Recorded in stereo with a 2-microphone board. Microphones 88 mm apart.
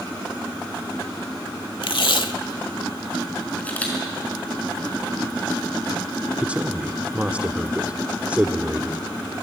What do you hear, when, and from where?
1.8 s tape being pulled: 70° left (ahead or behind), 1.0 m
3.6 s a camera shutter: 15° left (ahead or behind), 5 m
6.4 s a man speaking: 15° right (ahead or behind), 0.9 m